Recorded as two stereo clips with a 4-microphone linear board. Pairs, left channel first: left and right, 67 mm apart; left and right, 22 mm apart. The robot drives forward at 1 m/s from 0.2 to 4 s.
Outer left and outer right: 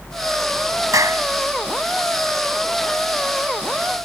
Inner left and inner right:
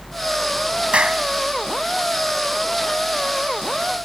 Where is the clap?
65° right (ahead or behind); by 1.2 s 60° right (ahead or behind).